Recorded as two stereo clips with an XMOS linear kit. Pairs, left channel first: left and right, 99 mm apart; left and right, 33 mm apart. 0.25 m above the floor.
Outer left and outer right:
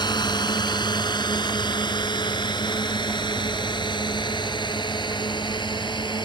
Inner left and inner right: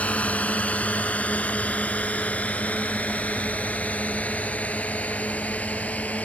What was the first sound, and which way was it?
A drone, 45° left (ahead or behind).